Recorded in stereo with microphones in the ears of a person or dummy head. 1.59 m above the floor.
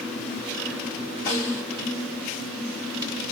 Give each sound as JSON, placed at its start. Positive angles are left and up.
{"t": 1.3, "sound": "a snare drum", "side_deg": 25, "distance_m": 1.3}